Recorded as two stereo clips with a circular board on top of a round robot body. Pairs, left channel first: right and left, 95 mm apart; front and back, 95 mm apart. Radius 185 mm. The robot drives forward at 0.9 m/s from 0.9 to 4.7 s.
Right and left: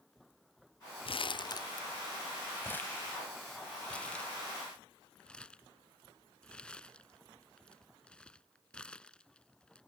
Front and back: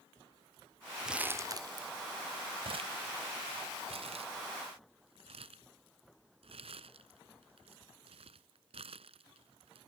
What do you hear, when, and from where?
1.1 s crumpling: 95° right; by 9.8 s 170° right